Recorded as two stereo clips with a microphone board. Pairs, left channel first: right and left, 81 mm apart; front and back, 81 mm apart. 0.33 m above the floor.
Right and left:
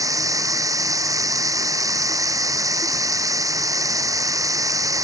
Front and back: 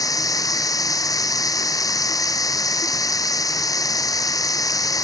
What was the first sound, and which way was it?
Running water, 45° left.